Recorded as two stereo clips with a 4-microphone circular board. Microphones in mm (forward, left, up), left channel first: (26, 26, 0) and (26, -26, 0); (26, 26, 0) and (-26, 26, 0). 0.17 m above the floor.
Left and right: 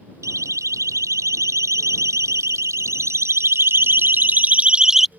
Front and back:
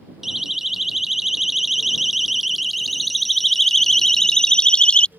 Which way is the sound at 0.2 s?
95° right.